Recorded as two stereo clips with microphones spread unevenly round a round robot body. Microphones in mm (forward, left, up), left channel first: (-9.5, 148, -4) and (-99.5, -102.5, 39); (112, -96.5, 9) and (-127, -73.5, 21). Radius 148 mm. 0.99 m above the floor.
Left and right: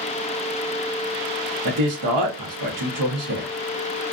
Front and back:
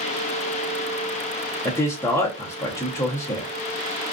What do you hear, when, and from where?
1.6 s a man speaking: 85° right, 0.8 m